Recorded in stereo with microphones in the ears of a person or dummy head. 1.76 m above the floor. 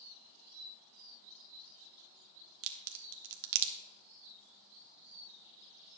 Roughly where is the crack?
Right.